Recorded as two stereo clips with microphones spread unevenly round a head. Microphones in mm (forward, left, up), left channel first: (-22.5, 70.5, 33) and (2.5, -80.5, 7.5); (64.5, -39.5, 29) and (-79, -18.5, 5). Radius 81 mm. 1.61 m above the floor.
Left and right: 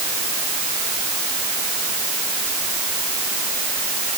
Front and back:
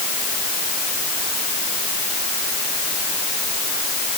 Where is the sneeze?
No sneeze in this recording.